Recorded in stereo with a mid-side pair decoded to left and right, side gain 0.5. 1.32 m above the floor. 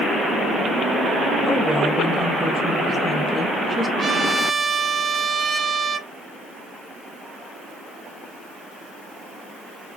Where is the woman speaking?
5° right, 1.5 m.